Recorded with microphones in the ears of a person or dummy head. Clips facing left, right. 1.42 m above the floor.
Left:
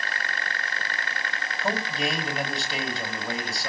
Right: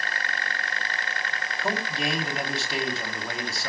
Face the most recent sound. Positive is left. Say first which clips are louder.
# left 1 dB
turn(degrees=0)  # may be behind; listen again after turning